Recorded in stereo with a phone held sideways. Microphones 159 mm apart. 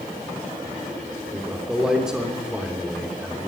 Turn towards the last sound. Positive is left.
turn(degrees=-5)  # may be behind; listen again after turning